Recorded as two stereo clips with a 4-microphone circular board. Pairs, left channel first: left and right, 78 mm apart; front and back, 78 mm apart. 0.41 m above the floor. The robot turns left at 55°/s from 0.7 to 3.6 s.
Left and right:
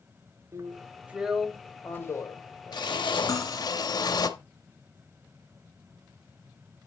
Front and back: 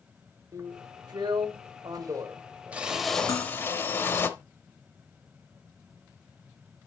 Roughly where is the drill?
Behind right.